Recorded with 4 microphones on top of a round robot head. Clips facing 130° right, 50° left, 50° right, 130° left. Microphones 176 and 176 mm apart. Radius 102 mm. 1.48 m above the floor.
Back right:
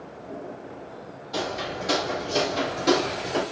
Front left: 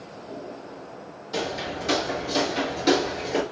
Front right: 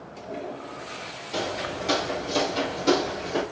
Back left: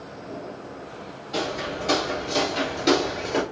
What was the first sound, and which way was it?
Footsteps, straight ahead.